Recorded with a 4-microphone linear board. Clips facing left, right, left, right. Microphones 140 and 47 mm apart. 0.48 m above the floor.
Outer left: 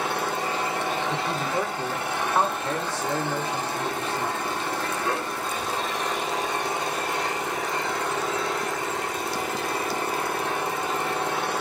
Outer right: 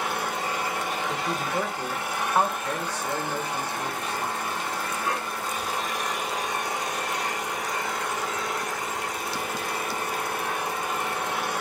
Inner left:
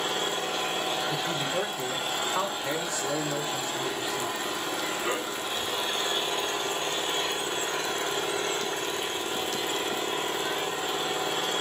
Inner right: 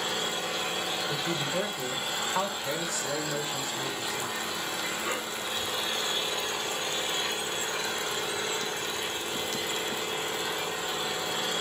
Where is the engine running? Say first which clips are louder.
Outer left 2 dB, inner left 2 dB; 30° left (ahead or behind), 3.5 m.